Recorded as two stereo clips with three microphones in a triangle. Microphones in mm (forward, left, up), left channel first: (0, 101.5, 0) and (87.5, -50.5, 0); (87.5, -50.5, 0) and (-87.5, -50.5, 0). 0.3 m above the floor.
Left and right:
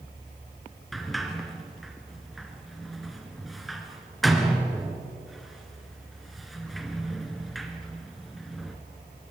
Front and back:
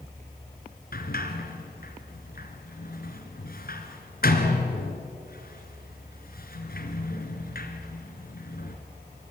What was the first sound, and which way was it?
A sliding door, 30° left.